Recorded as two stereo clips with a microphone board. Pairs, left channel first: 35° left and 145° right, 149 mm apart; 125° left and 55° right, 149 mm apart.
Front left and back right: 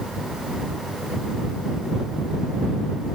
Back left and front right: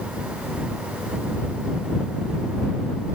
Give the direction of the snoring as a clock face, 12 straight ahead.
I don't hear snoring.